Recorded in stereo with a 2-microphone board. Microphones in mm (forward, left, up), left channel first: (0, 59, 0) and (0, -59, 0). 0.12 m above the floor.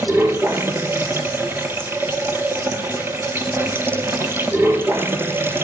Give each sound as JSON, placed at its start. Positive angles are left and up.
{"t": 0.0, "sound": "running water", "side_deg": -20, "distance_m": 0.9}